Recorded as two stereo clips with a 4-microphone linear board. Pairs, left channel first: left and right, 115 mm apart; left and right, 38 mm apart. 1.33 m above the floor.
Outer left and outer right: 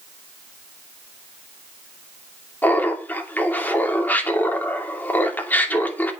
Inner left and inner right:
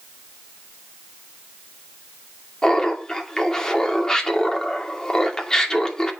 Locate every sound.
2.6 s laughter: 15° left (ahead or behind), 2.5 m